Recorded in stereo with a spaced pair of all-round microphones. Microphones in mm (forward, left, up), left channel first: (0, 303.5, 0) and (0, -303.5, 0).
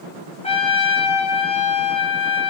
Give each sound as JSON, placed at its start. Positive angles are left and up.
{"t": 0.4, "sound": "a trumpet", "side_deg": 10, "distance_m": 4.0}